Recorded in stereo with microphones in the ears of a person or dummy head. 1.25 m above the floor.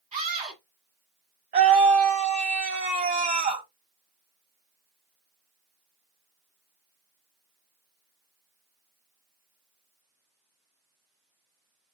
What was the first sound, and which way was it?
A scream, 35° right (ahead or behind).